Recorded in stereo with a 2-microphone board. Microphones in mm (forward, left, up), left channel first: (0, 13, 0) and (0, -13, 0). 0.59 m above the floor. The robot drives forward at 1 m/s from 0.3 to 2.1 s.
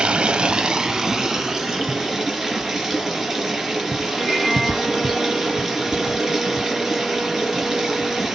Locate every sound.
0.0 s running water: 45° right (ahead or behind), 0.8 m; by 8.3 s 15° right (ahead or behind), 2.5 m
4.2 s a violin: 10° left (ahead or behind), 3 m